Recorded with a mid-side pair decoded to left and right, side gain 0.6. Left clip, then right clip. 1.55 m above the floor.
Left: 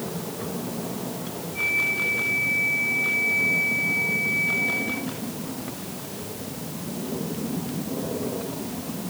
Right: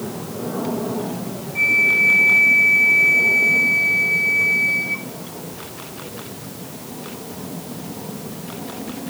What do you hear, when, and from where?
1.6 s a flute: 45° right, 1.8 m